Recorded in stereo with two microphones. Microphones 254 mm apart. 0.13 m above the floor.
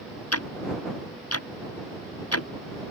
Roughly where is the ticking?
Left.